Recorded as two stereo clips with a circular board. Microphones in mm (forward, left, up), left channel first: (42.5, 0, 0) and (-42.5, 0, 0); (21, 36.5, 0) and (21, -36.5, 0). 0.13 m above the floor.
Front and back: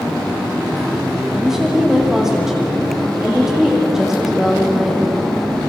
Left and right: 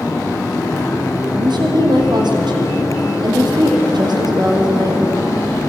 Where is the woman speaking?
95° right, 4.5 m.